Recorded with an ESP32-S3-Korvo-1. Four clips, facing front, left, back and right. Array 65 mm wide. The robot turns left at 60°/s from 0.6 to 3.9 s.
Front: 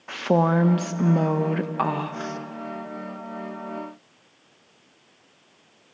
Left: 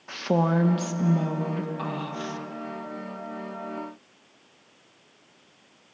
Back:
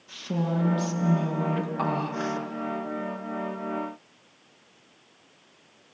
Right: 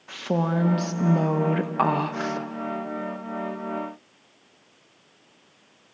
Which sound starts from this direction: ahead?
A woman speaking, at 0.1 s.